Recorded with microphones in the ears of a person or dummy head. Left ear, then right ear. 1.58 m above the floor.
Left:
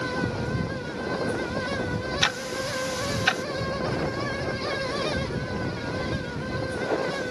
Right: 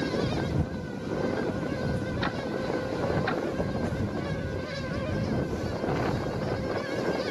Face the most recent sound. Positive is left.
turn(degrees=75)  # may be behind; listen again after turning